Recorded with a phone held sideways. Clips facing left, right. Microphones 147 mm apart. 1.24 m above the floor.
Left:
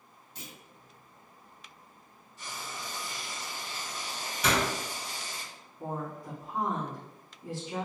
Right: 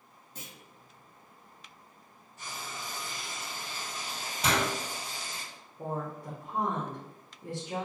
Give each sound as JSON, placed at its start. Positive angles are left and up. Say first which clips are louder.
{"t": 0.3, "sound": "a clunk", "louder": "left 1 dB", "side_deg": -50, "distance_m": 0.8}
{"t": 2.4, "sound": "frying", "louder": "even", "side_deg": -55, "distance_m": 1.5}
{"t": 4.4, "sound": "a door slam", "louder": "left 1 dB", "side_deg": -30, "distance_m": 1.4}
{"t": 5.8, "sound": "a woman speaking", "louder": "right 1 dB", "side_deg": -65, "distance_m": 0.9}